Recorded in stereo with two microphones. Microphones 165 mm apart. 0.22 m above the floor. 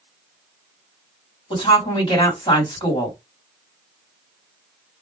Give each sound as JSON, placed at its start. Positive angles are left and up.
{"t": 1.5, "sound": "a woman speaking", "side_deg": 30, "distance_m": 1.8}